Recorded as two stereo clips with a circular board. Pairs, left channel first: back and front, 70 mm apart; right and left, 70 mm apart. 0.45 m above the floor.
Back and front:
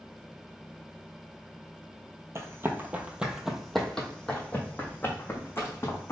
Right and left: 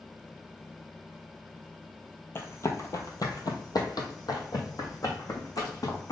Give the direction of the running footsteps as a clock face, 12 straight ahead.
1 o'clock.